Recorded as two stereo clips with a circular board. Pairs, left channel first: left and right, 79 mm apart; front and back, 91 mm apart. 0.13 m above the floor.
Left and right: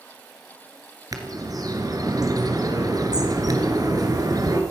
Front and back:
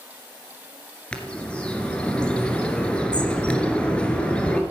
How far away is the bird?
About 2 m.